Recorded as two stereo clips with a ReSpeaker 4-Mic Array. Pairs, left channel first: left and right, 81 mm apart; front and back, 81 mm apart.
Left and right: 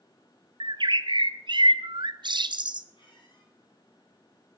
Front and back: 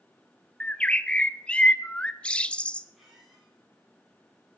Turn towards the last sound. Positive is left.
turn(degrees=90)